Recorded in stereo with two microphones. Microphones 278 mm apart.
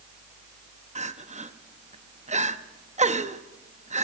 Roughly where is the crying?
Right.